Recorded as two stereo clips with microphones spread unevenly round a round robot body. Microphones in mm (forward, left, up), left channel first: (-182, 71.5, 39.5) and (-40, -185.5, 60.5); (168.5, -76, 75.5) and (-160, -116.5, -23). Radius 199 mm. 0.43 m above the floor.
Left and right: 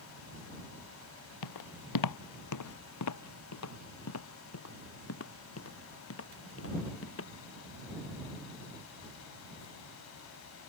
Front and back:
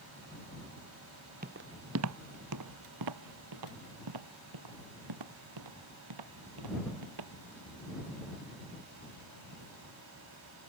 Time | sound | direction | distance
1.4 | footsteps | 115° left | ?